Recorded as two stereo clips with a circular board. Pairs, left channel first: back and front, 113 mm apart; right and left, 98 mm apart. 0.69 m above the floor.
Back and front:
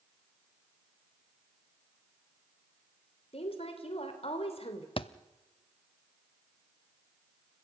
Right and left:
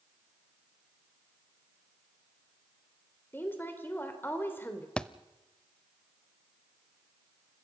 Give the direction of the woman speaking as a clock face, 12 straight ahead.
5 o'clock.